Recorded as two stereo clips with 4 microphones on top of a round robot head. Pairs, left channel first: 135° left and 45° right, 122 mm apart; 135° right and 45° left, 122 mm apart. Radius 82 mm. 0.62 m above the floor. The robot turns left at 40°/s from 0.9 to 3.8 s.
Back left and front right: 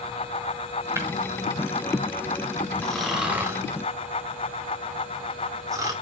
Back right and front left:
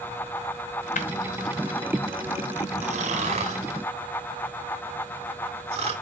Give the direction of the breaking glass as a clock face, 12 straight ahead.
4 o'clock.